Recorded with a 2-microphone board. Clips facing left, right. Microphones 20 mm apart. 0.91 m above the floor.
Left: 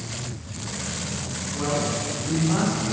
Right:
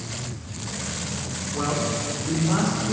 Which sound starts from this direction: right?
A man speaking, at 1.5 s.